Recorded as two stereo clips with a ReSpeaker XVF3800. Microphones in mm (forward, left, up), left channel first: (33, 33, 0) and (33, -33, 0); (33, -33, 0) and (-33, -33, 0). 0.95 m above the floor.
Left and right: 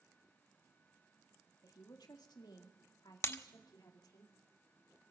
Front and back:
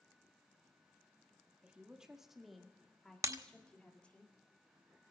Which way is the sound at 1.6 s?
110° left.